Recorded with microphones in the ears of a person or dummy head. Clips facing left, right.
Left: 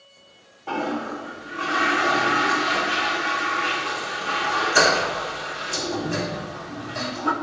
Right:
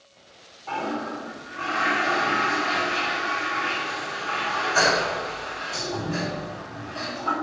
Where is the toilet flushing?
45° left (ahead or behind), 2.5 m.